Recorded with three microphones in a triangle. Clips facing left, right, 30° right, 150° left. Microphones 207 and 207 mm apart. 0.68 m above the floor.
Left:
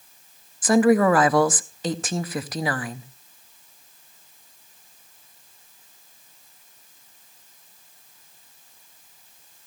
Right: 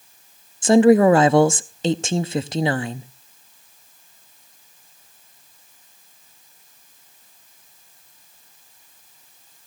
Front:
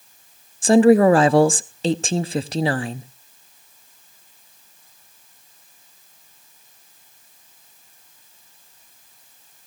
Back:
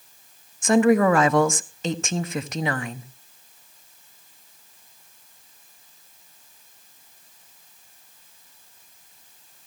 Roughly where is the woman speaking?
Ahead right.